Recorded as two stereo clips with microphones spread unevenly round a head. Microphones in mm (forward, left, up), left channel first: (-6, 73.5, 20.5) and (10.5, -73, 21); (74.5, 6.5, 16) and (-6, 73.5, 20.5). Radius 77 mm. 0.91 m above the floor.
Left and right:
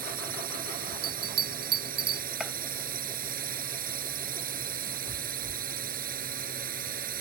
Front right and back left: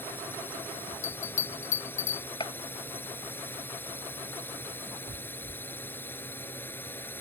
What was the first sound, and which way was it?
A drone, 115° right.